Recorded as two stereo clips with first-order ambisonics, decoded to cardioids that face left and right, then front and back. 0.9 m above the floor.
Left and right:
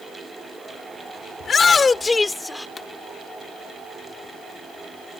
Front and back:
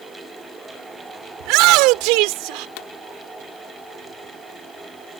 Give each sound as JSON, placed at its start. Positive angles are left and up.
{"t": 1.4, "sound": "a shout", "azimuth_deg": 160}
{"t": 2.8, "sound": "a pop", "azimuth_deg": 10}